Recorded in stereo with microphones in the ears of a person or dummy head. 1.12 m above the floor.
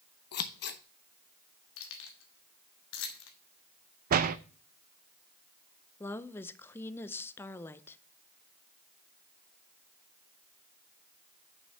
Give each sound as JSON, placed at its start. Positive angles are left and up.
{"t": 0.3, "sound": "scissors", "side_deg": 55, "distance_m": 0.8}
{"t": 1.8, "sound": "keys jangling", "side_deg": 75, "distance_m": 1.4}
{"t": 4.1, "sound": "a door slam", "side_deg": -40, "distance_m": 0.5}
{"t": 6.0, "sound": "a woman speaking", "side_deg": 15, "distance_m": 0.6}